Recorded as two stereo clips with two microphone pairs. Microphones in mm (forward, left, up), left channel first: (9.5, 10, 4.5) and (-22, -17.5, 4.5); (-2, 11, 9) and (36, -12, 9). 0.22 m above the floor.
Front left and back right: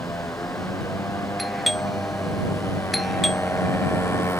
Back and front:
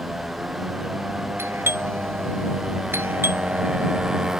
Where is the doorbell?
50° right.